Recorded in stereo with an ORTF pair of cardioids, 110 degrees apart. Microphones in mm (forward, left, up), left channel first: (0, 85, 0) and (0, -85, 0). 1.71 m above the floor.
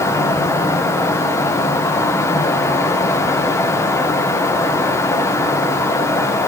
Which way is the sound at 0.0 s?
15° left.